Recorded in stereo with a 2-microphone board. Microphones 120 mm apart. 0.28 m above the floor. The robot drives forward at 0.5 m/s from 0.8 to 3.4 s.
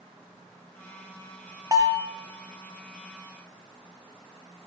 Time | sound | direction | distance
1.7 | a bell | 35° right (ahead or behind) | 2.5 m